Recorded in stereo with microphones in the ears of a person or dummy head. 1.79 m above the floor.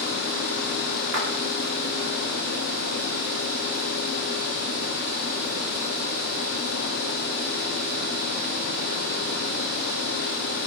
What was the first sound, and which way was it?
A splash, 75° right (ahead or behind).